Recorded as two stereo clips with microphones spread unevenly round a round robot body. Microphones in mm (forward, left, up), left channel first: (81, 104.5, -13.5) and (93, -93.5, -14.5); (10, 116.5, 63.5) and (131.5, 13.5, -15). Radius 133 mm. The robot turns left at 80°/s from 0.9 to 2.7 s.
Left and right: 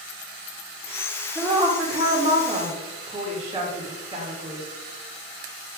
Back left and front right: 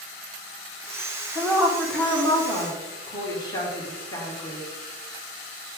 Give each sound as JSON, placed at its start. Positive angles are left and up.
{"t": 1.4, "sound": "a woman speaking", "azimuth_deg": -10, "distance_m": 1.4}